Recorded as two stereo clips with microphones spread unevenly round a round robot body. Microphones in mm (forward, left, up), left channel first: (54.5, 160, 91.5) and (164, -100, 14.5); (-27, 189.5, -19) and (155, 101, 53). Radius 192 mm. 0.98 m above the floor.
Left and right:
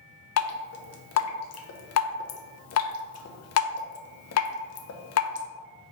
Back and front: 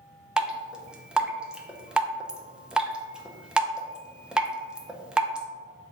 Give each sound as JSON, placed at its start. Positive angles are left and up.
{"t": 0.4, "sound": "dripping", "azimuth_deg": 85, "distance_m": 0.7}